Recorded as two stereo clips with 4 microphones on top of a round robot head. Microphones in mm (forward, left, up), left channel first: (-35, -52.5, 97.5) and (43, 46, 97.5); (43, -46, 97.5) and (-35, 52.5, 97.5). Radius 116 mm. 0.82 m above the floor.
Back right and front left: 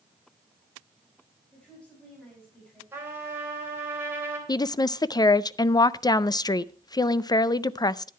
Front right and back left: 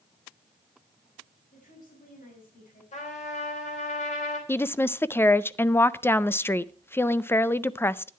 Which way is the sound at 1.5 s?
50° right.